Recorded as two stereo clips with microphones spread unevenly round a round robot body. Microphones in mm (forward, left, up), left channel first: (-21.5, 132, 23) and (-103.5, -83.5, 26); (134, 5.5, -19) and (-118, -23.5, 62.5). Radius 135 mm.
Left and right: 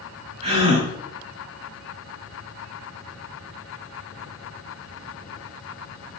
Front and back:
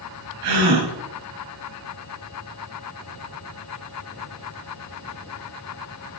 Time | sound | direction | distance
0.4 | a gasp | 175° right | 4 m